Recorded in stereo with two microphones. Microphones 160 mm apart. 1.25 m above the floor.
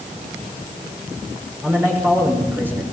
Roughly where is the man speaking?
Centre.